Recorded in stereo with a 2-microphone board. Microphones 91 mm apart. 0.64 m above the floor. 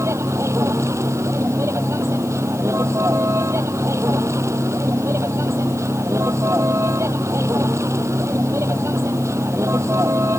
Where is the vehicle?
35° right (ahead or behind).